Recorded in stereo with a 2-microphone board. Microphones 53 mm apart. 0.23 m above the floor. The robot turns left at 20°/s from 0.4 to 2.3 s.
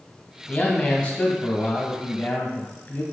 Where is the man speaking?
150° left, 1.3 m; by 3.0 s 110° left, 1.3 m.